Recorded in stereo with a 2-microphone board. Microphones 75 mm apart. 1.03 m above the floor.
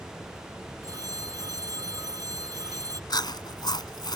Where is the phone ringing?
55° right (ahead or behind).